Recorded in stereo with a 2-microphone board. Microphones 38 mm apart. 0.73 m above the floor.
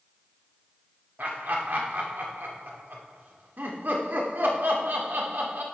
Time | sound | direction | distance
1.2 | laughter | 60° right (ahead or behind) | 2.5 m